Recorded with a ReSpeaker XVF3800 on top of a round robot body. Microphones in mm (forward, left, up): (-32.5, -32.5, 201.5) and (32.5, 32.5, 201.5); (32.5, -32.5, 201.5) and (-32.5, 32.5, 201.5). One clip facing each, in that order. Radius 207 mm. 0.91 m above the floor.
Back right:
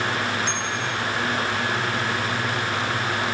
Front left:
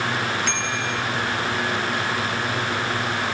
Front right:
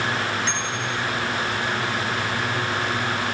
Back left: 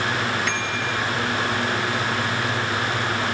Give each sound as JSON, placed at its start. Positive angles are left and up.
{"t": 0.5, "sound": "a bicycle bell", "azimuth_deg": 15}